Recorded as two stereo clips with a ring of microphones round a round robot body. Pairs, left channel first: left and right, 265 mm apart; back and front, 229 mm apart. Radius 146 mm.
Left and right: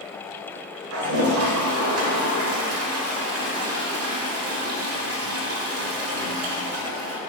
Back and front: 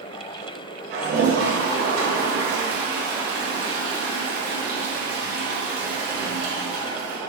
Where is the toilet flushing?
55° right, 1.0 m.